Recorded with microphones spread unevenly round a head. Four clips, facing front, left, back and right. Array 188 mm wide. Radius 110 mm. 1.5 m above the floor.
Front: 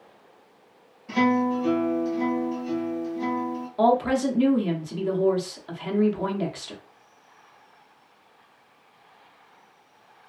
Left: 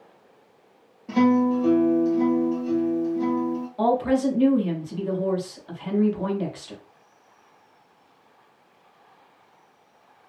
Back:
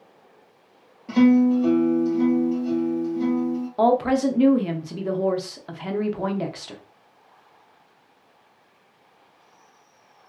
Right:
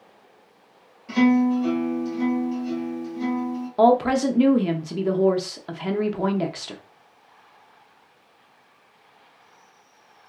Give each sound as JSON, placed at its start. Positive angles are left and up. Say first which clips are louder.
{"t": 1.1, "sound": "a guitar", "louder": "right 1 dB, back 6 dB", "azimuth_deg": 140, "distance_m": 1.0}
{"t": 3.8, "sound": "a woman speaking", "louder": "right 4 dB, back 1 dB", "azimuth_deg": -95, "distance_m": 0.7}